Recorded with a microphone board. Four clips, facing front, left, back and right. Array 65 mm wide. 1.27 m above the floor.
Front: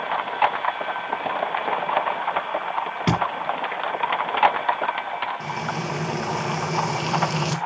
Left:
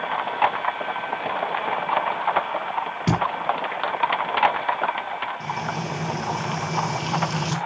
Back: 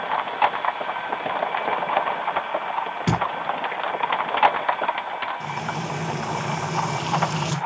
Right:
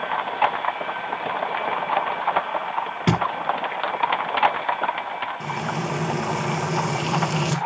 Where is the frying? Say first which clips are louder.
Right 1 dB, front 1 dB; 45° right, 1.5 m.